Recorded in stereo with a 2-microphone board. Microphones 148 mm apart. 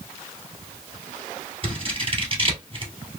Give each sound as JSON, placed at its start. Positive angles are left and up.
{"t": 1.6, "sound": "scissors", "side_deg": -40, "distance_m": 1.7}